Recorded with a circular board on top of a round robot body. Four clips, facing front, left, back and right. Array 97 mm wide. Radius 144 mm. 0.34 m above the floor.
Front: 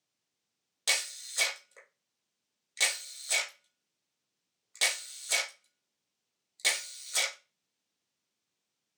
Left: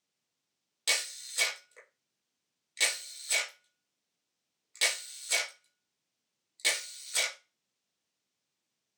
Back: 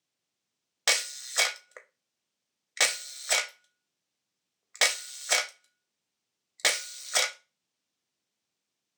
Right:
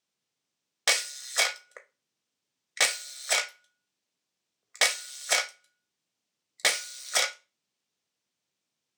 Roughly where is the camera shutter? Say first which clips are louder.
Right 6 dB, back 5 dB; behind right.